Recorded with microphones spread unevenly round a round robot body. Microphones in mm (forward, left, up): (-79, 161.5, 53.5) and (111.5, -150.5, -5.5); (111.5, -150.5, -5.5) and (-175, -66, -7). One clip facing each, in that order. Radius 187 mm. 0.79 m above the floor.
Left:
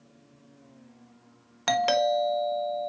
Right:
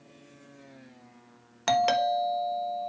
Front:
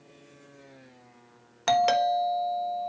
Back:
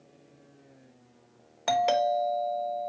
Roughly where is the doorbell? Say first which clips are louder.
Left 2 dB, front 1 dB; ahead.